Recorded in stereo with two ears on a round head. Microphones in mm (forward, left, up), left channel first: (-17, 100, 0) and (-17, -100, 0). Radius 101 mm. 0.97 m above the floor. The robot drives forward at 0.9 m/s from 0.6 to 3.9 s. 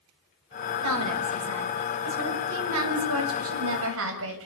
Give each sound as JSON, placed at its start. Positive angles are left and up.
{"t": 0.8, "sound": "a woman speaking", "side_deg": -80, "distance_m": 6.0}